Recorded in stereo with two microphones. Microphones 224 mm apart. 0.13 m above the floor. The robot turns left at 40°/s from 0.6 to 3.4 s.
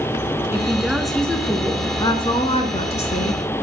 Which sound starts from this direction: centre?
A woman speaking, at 0.5 s.